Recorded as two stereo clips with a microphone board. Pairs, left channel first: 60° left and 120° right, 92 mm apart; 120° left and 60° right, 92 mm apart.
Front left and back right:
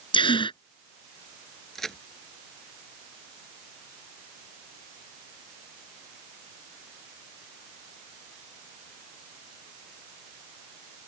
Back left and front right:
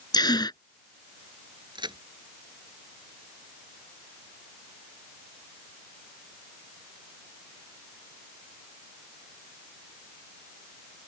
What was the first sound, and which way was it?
A gasp, 80° left.